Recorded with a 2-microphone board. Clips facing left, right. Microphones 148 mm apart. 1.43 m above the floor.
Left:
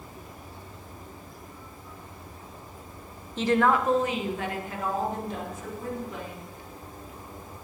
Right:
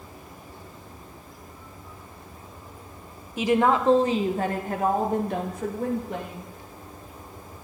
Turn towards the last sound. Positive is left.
turn(degrees=-65)  # may be behind; listen again after turning